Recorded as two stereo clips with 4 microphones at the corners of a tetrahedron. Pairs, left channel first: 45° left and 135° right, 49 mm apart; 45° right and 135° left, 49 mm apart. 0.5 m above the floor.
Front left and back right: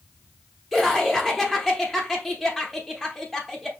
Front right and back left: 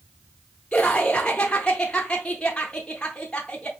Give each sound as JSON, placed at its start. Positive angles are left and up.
{"t": 0.7, "sound": "laughter", "azimuth_deg": -40, "distance_m": 0.6}